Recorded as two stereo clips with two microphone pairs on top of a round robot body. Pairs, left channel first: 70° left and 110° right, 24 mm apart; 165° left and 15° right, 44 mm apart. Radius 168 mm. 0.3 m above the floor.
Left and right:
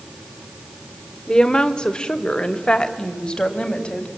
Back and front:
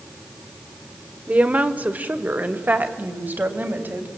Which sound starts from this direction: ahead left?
A woman speaking, at 1.3 s.